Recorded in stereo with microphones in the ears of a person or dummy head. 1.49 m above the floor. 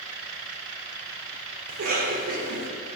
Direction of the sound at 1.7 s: 55° right (ahead or behind).